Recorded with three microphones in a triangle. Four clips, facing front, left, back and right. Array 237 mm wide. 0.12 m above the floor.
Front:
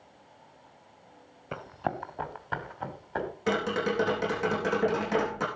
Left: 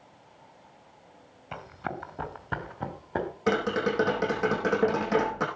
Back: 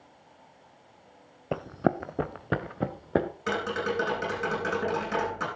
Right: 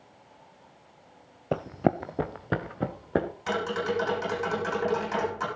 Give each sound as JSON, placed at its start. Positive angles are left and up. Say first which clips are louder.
{"t": 1.5, "sound": "running footsteps", "louder": "right 10 dB, back 6 dB", "azimuth_deg": -115, "distance_m": 1.0}
{"t": 3.5, "sound": "tapping", "louder": "left 5 dB, front 5 dB", "azimuth_deg": 75, "distance_m": 7.5}